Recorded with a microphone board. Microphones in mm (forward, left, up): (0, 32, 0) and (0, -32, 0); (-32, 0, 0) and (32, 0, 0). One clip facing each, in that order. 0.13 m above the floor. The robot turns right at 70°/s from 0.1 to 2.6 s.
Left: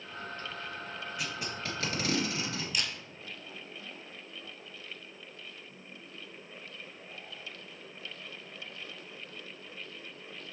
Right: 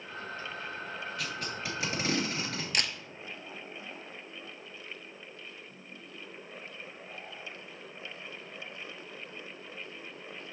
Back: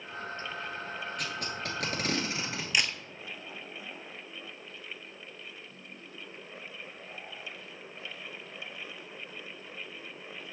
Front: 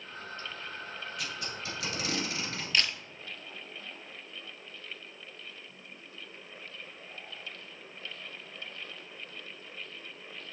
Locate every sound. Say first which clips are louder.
1.2 s tape being pulled: left 1 dB, back 3 dB; 155° left, 1.9 m; by 2.6 s 105° right, 1.9 m
2.7 s a camera shutter: right 5 dB, even; 110° right, 0.8 m